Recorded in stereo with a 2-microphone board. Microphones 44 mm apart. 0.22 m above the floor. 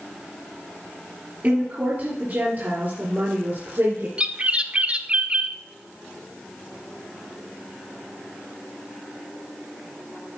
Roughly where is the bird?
Right.